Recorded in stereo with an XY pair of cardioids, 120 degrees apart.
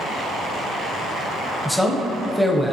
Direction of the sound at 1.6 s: 5° left.